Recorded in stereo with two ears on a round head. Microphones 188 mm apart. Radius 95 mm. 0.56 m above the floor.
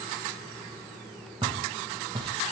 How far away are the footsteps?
About 0.7 m.